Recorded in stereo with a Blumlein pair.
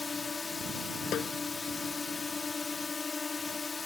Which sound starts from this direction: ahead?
A drone, at 0.0 s.